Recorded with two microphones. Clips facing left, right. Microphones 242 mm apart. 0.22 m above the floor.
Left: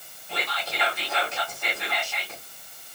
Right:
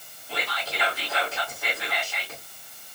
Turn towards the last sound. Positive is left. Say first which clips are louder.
# even
turn(degrees=-5)  # may be behind; listen again after turning